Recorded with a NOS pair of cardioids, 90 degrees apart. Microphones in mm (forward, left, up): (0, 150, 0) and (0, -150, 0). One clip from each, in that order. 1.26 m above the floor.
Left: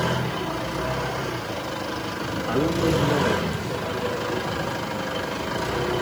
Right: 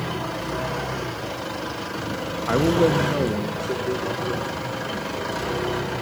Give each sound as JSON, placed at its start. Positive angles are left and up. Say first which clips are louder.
{"t": 2.5, "sound": "a man speaking", "louder": "right 4 dB", "azimuth_deg": -45, "distance_m": 1.5}